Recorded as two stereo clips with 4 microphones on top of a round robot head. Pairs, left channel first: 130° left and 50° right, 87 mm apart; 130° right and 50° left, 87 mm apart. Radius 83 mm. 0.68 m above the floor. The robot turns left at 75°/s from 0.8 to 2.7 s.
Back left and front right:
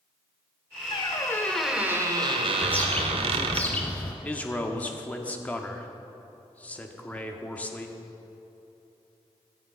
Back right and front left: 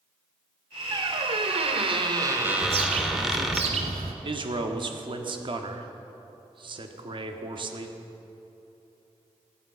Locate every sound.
0.9 s a squeak: 95° left, 1.1 m; by 3.6 s 40° right, 1.1 m
2.6 s a bird: 65° left, 1.3 m; by 4.1 s 55° left, 1.3 m
4.2 s a man speaking: 60° left, 1.5 m